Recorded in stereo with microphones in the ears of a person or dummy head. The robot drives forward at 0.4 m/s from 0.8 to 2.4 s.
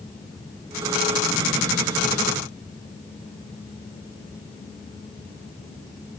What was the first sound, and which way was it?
Only background noise.